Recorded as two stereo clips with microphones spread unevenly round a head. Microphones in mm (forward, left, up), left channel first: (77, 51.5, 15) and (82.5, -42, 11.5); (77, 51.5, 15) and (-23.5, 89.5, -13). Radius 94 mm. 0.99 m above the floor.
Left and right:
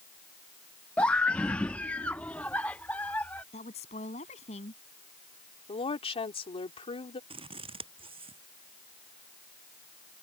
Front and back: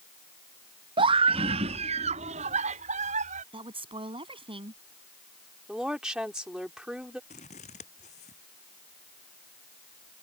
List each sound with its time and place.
1.0 s a scream: 170° left; by 3.4 s 175° left
3.5 s a woman speaking: 120° left
5.7 s a woman speaking: 75° left
7.3 s scissors: 65° right